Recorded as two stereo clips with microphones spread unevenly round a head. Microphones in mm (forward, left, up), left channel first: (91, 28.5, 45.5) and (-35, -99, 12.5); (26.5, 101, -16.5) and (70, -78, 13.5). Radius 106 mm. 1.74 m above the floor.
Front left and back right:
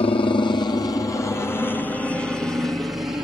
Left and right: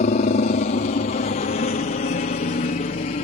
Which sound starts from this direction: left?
A helicopter, at 0.0 s.